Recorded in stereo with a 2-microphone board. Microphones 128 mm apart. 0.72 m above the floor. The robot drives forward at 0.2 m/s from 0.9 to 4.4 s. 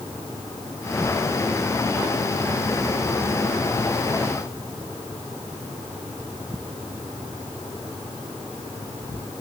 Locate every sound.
Only background noise.